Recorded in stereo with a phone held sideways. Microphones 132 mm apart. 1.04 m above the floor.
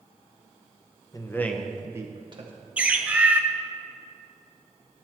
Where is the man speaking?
25° left (ahead or behind), 0.8 m; by 2.5 s 40° right (ahead or behind), 0.9 m.